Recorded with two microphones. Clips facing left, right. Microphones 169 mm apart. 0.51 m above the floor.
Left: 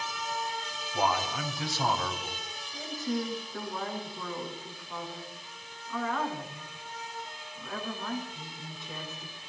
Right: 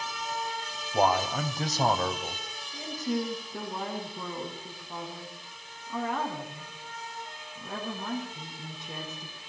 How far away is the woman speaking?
About 7 m.